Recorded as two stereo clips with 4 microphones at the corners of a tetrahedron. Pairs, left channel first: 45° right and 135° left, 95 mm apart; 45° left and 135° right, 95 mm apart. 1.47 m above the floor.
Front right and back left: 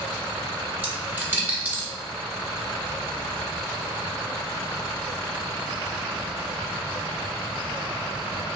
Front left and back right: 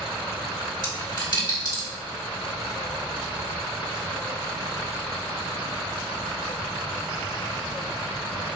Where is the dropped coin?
70° left, 1.5 m.